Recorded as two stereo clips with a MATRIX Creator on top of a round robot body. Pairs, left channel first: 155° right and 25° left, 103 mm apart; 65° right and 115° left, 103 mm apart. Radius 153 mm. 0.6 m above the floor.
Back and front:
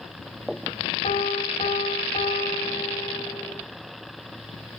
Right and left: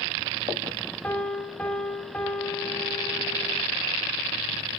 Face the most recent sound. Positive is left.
turn(degrees=-140)